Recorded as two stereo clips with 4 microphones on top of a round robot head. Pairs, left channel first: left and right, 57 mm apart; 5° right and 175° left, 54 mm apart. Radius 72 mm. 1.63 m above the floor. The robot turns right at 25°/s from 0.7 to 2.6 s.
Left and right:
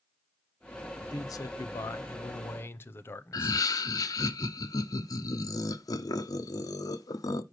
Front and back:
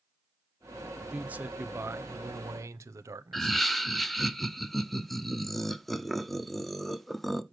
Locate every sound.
1.1 s a man speaking: 105° left, 0.8 m; by 3.6 s 140° left, 0.8 m
3.3 s laughter: 80° left, 1.0 m